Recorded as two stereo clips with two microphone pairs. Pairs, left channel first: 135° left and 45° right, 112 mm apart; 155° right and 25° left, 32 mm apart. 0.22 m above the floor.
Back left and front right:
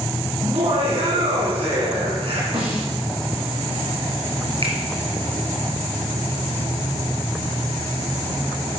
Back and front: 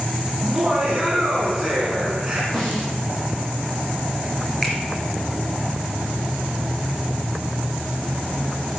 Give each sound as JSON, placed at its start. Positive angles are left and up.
{"t": 0.4, "sound": "laughter", "azimuth_deg": -50, "distance_m": 2.5}
{"t": 2.5, "sound": "a snare drum", "azimuth_deg": -85, "distance_m": 5.0}
{"t": 4.6, "sound": "a finger snap", "azimuth_deg": -80, "distance_m": 3.5}